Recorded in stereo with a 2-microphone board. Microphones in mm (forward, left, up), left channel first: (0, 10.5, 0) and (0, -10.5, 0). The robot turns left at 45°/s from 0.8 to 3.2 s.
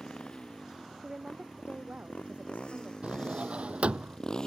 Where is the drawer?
70° right (ahead or behind); by 4.2 s 75° right (ahead or behind).